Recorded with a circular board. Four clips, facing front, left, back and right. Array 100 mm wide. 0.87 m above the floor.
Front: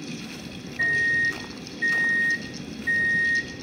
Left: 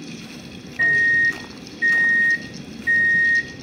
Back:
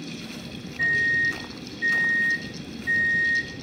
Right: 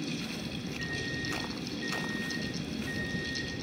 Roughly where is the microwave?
Left.